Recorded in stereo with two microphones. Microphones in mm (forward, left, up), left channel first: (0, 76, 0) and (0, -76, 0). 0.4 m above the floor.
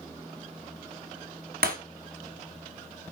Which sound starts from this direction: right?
Breaking glass, at 1.6 s.